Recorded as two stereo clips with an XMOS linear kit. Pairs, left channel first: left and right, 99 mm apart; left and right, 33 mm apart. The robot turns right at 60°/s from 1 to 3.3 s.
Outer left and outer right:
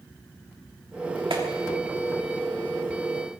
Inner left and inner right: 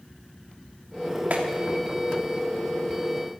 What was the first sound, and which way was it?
A clap, 60° right (ahead or behind).